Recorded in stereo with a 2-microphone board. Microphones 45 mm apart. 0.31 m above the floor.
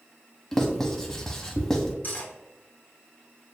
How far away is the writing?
About 0.7 m.